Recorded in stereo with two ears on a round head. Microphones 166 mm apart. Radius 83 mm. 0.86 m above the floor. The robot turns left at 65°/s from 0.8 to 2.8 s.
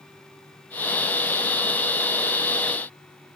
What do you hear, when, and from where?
Only background noise.